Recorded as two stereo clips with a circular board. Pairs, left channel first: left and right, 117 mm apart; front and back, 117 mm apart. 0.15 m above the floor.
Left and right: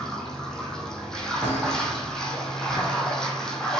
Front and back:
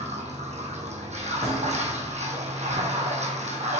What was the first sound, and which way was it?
Running water, 175° left.